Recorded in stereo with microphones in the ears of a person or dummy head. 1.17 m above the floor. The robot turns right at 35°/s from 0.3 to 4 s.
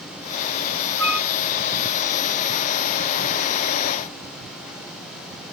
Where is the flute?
Centre (ahead or behind), 0.9 m; by 1.3 s 10° right (ahead or behind), 0.9 m.